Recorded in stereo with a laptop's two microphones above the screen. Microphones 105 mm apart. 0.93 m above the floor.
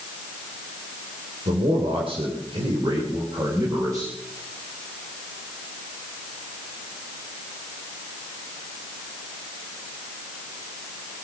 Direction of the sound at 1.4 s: 75° right (ahead or behind).